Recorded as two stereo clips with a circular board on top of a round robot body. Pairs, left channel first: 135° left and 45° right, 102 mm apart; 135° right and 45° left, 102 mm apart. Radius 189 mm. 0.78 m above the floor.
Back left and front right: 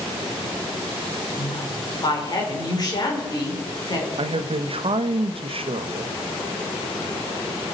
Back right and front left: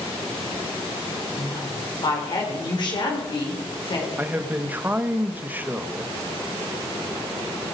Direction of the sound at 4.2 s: 25° right.